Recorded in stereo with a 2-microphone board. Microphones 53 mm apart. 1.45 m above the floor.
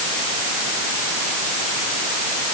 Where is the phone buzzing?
No phone buzzing in this recording.